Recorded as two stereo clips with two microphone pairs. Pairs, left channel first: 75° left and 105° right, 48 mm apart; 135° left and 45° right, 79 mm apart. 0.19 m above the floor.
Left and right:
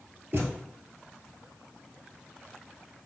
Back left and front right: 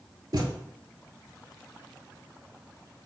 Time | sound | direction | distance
0.3 | a thud | 65° right | 0.8 m